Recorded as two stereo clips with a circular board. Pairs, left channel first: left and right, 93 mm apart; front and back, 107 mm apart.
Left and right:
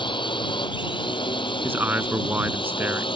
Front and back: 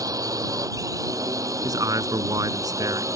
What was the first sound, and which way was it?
A drone, 125° left.